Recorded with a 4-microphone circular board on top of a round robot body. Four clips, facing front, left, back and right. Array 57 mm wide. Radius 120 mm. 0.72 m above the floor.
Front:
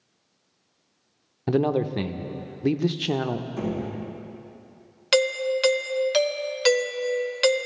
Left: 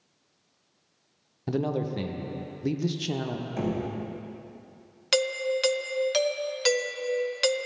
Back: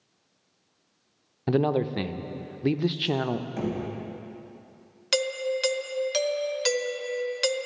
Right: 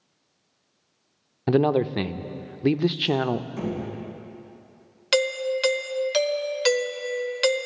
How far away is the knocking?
About 4 m.